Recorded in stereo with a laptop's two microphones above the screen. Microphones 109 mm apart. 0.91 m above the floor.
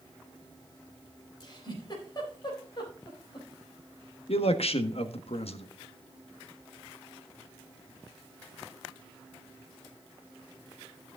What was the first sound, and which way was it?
A giggle, 40° left (ahead or behind).